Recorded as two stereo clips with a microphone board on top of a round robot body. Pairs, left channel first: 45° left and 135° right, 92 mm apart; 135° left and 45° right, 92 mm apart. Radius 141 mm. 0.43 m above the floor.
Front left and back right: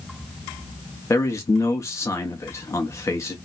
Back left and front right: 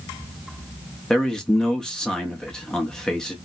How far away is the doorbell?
No doorbell in this recording.